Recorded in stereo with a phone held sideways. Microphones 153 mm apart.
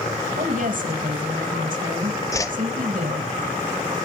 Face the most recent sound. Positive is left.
turn(degrees=20)  # may be behind; listen again after turning